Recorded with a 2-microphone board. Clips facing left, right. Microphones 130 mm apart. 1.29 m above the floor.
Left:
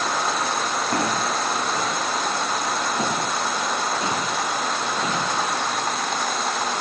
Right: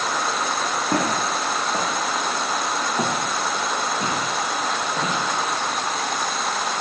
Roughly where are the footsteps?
Right.